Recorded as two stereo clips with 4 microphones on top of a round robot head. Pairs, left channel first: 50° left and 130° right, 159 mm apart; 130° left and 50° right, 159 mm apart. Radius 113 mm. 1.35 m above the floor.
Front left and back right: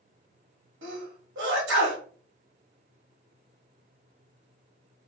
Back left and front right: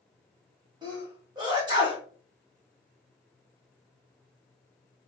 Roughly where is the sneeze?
Behind right.